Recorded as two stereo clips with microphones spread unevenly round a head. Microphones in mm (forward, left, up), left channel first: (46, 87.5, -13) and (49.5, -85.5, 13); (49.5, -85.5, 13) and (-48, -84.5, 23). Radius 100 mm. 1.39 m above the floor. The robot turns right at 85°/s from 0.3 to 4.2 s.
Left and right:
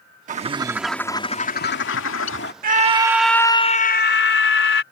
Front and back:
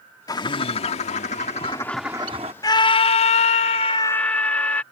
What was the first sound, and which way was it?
A bird, 50° right.